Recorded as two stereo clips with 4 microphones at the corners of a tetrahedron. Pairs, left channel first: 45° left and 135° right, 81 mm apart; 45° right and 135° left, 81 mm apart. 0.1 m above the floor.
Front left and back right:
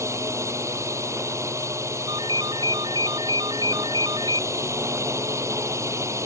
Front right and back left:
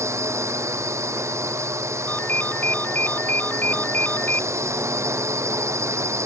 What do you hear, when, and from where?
0.0 s a drone: straight behind
2.1 s a ringtone: 115° right